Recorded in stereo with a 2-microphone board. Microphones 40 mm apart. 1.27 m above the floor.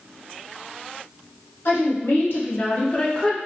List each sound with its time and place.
1.6 s a woman speaking: 65° left (ahead or behind), 1.8 m; by 3.4 s 10° left (ahead or behind), 0.9 m